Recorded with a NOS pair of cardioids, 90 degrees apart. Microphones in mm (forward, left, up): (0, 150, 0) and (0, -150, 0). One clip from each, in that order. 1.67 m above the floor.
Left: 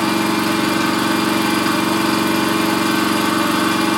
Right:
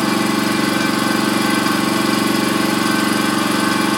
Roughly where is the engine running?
Ahead.